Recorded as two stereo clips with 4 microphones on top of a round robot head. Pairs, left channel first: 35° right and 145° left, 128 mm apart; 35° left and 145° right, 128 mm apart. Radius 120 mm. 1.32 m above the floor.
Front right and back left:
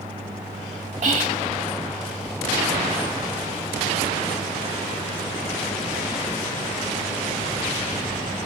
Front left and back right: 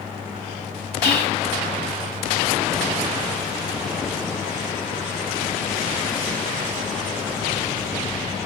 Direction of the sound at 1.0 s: 175° left.